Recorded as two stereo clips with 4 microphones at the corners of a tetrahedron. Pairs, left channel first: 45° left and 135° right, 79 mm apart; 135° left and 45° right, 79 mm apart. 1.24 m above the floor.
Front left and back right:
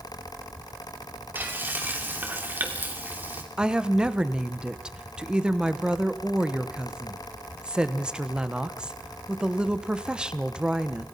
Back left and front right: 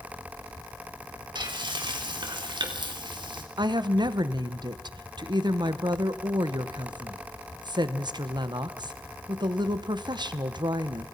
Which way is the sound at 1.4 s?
70° right.